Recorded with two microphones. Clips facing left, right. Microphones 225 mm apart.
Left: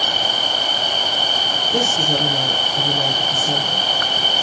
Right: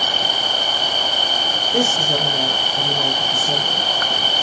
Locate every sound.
1.7 s a woman speaking: 45° left (ahead or behind), 3.5 m